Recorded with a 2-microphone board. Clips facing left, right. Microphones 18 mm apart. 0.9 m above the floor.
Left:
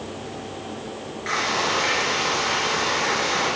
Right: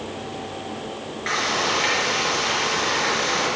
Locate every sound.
1.3 s frying: 15° right (ahead or behind), 5.5 m